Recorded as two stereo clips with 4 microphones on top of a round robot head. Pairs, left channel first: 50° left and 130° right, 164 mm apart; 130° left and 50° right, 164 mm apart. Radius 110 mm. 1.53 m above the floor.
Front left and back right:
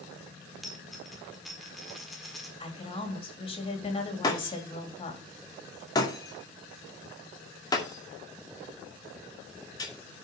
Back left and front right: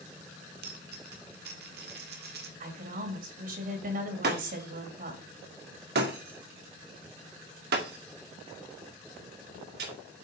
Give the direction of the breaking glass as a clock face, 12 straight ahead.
1 o'clock.